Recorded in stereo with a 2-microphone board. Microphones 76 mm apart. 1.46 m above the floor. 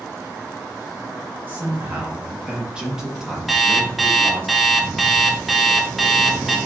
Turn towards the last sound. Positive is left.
turn(degrees=0)  # may be behind; listen again after turning